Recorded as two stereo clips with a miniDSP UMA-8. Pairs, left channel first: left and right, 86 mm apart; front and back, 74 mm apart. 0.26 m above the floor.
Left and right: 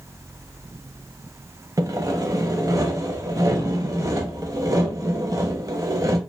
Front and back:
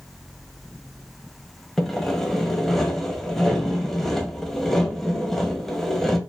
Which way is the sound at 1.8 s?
85° right.